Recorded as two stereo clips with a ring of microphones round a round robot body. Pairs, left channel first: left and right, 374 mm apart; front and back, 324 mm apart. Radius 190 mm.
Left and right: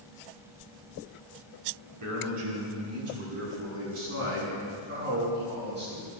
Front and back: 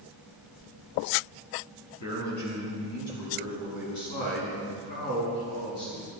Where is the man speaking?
45° right, 4.5 m; by 6.1 s 25° right, 7.5 m.